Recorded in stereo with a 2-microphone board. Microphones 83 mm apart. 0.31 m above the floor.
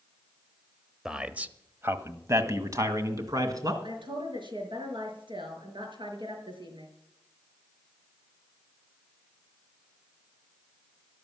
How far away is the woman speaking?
About 5 m.